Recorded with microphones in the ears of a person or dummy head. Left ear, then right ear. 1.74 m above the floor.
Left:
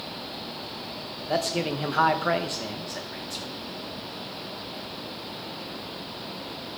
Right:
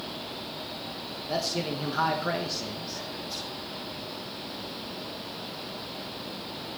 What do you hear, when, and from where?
1.3 s a man speaking: 25° left (ahead or behind), 1.8 m